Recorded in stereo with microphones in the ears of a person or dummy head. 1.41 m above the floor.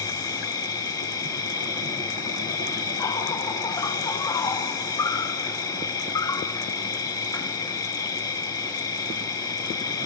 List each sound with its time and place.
0.0 s an insect: 15° left (ahead or behind), 0.9 m